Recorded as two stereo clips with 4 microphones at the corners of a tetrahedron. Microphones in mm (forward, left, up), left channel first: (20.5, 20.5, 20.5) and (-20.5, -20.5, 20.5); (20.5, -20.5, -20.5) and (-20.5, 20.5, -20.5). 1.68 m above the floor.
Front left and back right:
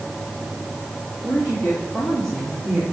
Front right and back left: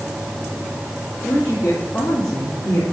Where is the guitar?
No guitar in this recording.